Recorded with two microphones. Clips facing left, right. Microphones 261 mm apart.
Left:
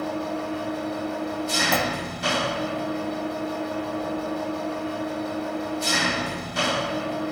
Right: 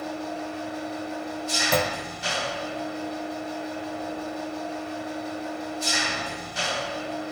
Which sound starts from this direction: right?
A clunk, at 1.7 s.